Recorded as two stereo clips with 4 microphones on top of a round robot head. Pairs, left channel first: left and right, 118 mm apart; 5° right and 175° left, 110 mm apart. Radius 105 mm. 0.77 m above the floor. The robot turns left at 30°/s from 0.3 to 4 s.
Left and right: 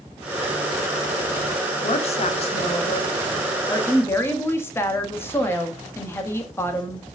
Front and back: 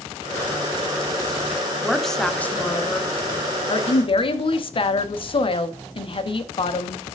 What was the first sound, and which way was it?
A woman speaking, 90° left.